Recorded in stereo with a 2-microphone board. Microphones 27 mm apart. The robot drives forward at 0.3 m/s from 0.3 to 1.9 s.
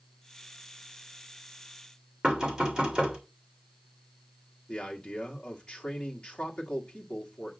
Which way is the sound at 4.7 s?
40° left (ahead or behind).